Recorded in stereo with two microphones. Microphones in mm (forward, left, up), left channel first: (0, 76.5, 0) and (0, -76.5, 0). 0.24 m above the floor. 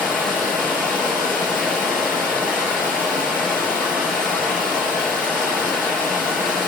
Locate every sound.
0.0 s running water: 20° right (ahead or behind), 5.5 m